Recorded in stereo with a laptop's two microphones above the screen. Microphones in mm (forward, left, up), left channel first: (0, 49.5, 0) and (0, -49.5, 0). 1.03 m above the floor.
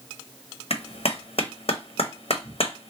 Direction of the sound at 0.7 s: 75° left (ahead or behind).